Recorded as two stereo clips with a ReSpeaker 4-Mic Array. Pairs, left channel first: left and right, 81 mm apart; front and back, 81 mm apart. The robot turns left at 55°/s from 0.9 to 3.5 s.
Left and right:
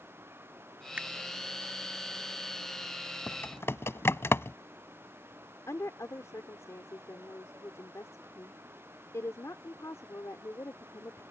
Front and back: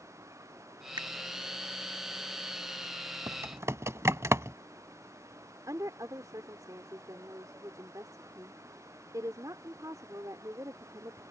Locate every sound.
1.0 s a finger snap: 160° right; by 1.1 s 165° right
3.3 s typing on a keyboard: 150° left; by 4.6 s 135° left
5.7 s a woman speaking: 140° left